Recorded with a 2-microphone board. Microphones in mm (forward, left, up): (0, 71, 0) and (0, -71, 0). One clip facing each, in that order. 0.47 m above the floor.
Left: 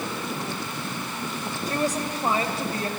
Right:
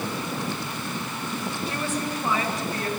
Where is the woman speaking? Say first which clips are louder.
Left 5 dB; 40° left (ahead or behind), 2 m; by 2.9 s 25° left (ahead or behind), 3 m.